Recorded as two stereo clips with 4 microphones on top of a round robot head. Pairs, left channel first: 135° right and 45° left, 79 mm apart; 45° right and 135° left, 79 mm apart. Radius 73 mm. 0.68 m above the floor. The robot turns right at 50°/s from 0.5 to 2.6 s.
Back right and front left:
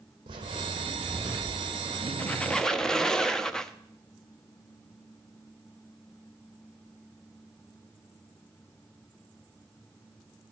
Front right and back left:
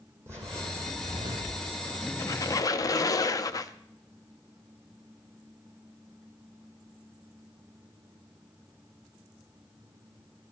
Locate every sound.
0.3 s footsteps: 75° left, 1.4 m; by 2.1 s 165° left, 3 m
2.2 s a squeak: 75° right, 0.7 m; by 3.7 s 55° right, 0.7 m